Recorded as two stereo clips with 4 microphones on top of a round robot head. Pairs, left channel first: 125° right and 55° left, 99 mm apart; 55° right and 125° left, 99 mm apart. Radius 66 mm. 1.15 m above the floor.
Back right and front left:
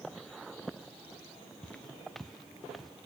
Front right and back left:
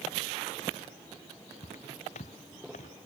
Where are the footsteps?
45° right; by 2.9 s 35° right.